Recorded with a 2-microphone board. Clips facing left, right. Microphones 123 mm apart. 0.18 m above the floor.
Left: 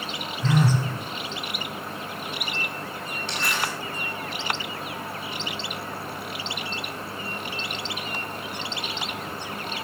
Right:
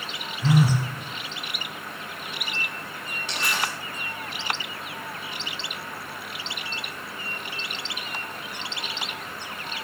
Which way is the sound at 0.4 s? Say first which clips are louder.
Right 1 dB; 10° right (ahead or behind).